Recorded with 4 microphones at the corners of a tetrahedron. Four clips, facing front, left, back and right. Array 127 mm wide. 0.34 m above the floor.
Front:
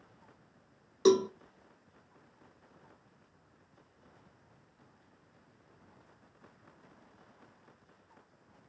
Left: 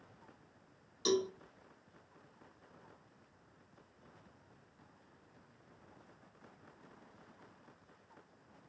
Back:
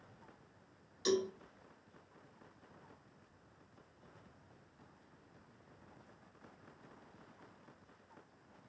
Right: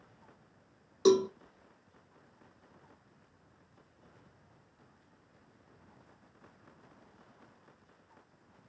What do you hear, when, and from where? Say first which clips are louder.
1.1 s a cowbell: right 9 dB, front 10 dB; 35° right, 0.5 m